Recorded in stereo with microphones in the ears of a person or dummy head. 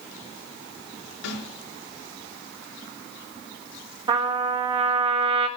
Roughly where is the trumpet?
Right.